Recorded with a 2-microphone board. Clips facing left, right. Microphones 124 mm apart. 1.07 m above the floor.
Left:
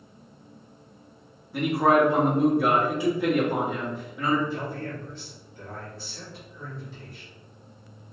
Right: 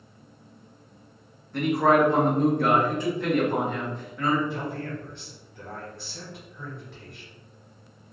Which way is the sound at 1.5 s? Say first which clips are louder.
Even; 10° left (ahead or behind).